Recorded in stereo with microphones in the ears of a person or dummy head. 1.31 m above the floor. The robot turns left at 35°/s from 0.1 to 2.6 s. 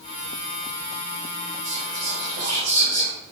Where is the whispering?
135° right, 1.4 m; by 3.1 s 170° right, 1.4 m.